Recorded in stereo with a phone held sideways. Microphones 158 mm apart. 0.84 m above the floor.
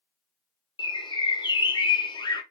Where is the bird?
25° left (ahead or behind), 0.5 m.